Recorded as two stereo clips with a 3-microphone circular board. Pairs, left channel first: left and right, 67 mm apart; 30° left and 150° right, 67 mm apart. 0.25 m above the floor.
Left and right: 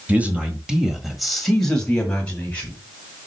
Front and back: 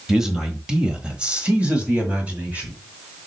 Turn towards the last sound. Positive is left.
turn(degrees=150)